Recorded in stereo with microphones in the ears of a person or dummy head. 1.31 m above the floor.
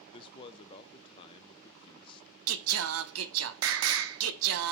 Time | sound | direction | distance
0.1 | a man speaking | 25° left (ahead or behind) | 0.7 m
2.5 | singing | 70° right (ahead or behind) | 0.7 m